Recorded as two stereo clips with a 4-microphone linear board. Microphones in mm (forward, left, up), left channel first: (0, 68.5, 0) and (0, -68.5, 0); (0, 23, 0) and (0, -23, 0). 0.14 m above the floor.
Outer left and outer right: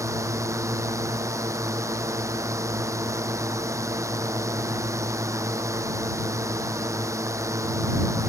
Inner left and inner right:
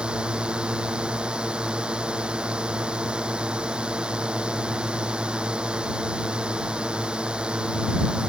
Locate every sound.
0.0 s a drone: 20° right (ahead or behind)